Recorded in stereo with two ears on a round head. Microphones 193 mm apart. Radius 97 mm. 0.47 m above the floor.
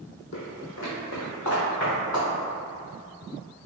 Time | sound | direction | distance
0.3 | footsteps | 60° left (ahead or behind) | 1.0 m